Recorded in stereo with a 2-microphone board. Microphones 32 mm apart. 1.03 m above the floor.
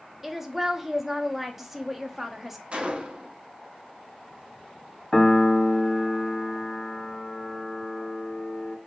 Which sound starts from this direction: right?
A gunshot, at 2.7 s.